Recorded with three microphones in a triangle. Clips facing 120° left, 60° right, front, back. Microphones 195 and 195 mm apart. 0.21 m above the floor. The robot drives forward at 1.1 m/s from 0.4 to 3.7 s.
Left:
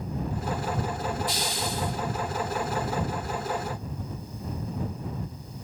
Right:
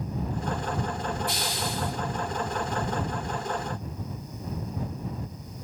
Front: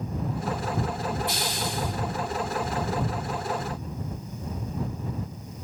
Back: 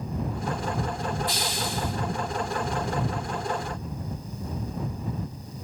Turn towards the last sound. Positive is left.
turn(degrees=-85)